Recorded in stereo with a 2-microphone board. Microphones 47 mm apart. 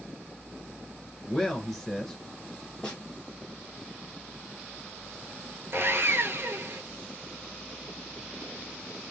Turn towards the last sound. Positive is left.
turn(degrees=-60)  # may be behind; listen again after turning